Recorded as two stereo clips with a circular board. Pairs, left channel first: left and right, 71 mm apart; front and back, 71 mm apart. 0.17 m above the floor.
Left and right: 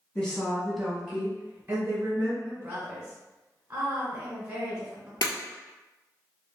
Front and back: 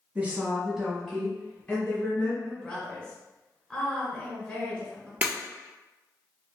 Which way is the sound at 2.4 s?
50° right.